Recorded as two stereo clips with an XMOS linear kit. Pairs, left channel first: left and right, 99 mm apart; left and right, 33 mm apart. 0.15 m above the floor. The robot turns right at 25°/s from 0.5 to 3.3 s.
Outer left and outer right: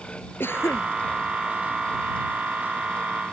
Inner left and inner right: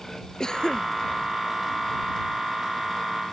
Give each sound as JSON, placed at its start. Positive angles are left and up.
{"t": 0.4, "sound": "a cough", "side_deg": 20}